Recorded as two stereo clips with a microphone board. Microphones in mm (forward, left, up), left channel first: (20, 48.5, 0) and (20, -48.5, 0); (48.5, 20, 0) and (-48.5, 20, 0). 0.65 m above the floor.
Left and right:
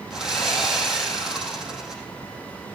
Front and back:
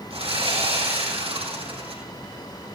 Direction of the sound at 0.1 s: 175° right.